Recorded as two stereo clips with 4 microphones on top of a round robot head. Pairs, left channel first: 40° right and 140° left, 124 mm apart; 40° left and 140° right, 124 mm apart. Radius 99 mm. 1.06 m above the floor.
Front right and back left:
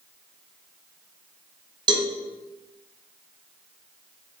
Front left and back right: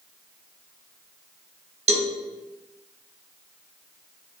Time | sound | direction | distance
1.9 | a cowbell | 170° right | 0.7 m